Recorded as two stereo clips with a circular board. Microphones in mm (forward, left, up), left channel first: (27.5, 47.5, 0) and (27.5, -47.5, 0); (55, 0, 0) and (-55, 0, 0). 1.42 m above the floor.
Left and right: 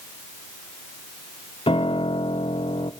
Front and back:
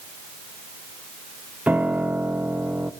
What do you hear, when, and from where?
1.7 s a piano: 105° left, 1.2 m